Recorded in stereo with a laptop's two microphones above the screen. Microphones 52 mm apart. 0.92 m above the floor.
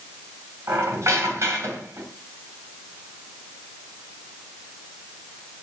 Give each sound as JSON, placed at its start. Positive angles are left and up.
{"t": 0.7, "sound": "a squeak", "side_deg": -75, "distance_m": 2.5}